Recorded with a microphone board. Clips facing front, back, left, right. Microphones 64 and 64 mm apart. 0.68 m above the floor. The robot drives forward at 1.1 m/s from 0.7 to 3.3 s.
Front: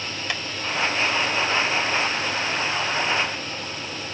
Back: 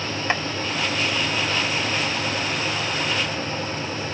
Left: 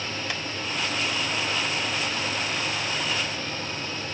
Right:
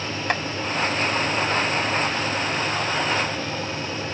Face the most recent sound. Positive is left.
turn(degrees=-160)